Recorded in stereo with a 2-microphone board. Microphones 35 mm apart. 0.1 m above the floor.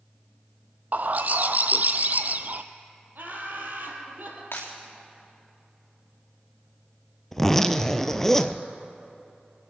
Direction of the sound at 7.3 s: 10° left (ahead or behind).